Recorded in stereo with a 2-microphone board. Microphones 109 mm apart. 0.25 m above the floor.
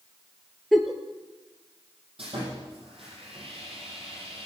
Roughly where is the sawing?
Right.